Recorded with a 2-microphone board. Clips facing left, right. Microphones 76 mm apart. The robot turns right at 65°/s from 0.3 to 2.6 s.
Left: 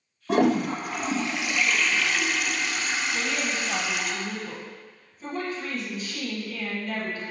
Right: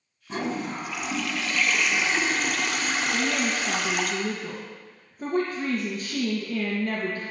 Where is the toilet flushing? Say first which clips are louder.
Left 8 dB; 90° left, 0.6 m; by 4.1 s 120° right, 0.6 m.